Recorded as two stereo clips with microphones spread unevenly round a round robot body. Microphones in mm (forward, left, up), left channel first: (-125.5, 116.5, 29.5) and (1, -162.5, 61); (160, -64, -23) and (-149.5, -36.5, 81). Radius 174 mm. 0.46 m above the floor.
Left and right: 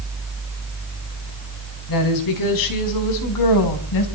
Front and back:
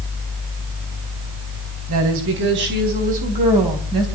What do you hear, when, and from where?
1.9 s a woman speaking: 120° left, 4.5 m; by 4.1 s 90° left, 4 m